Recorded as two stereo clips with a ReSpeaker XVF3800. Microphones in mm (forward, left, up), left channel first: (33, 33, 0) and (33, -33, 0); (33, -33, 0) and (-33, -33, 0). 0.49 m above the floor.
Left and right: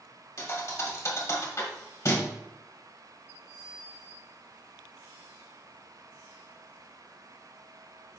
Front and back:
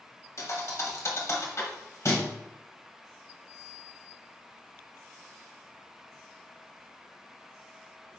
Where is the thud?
45° left, 1.1 m.